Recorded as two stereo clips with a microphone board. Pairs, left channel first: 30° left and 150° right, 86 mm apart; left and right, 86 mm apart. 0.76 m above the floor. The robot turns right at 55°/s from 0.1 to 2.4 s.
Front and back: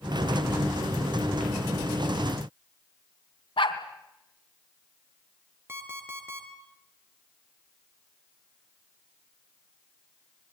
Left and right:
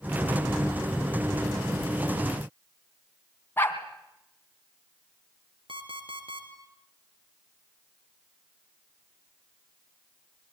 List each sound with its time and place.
3.6 s a dog barking: 25° left, 3 m
5.7 s an alarm clock: 85° right, 4.5 m